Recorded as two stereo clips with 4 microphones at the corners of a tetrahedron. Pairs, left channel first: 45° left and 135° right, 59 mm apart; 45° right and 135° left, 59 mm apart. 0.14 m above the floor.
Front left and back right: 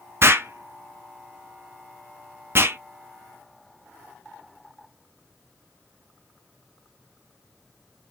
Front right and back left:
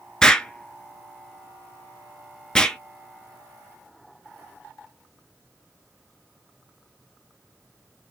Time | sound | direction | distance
0.2 | an explosion | 120° right | 0.6 m